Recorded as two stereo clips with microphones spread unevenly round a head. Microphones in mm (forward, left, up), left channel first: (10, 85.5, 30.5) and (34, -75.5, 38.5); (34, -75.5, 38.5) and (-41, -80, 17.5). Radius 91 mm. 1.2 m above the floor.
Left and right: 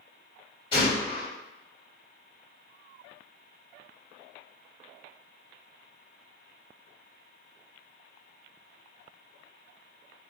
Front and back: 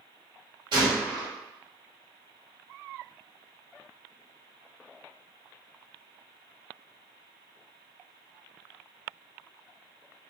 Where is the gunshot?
160° left, 2 m.